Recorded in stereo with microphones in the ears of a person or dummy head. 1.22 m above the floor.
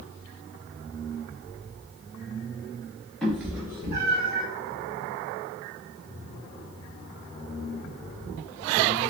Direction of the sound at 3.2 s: 5° left (ahead or behind).